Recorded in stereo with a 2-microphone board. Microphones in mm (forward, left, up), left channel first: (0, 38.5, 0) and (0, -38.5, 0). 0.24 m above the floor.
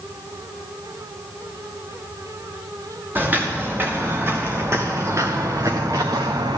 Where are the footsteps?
25° right (ahead or behind), 2.5 m; by 6.6 s 65° right (ahead or behind), 1.1 m.